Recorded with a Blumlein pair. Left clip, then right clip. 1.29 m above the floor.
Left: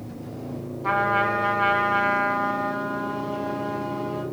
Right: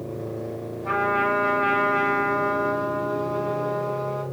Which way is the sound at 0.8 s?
55° left.